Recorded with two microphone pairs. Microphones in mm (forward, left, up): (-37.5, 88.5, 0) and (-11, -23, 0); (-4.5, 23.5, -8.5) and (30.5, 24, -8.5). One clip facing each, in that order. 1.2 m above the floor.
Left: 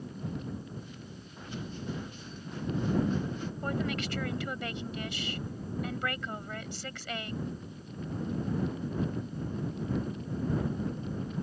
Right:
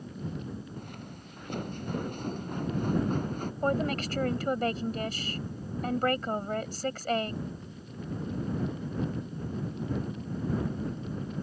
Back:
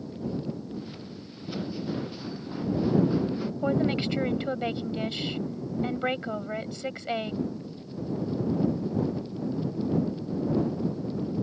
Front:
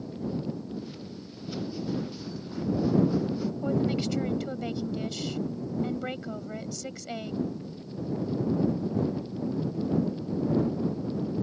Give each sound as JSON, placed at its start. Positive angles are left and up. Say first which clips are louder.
{"t": 0.8, "sound": "footsteps", "louder": "right 2 dB, even", "azimuth_deg": -105}
{"t": 3.6, "sound": "a woman speaking", "louder": "right 6 dB, back 3 dB", "azimuth_deg": -125}